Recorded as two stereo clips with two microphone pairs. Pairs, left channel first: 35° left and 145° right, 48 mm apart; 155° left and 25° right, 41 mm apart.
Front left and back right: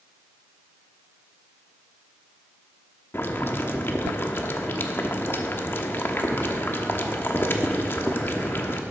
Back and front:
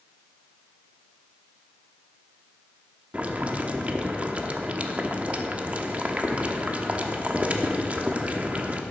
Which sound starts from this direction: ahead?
Boiling, at 3.1 s.